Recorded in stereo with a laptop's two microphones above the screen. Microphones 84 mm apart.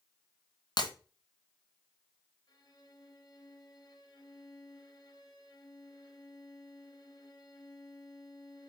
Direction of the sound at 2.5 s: 55° left (ahead or behind).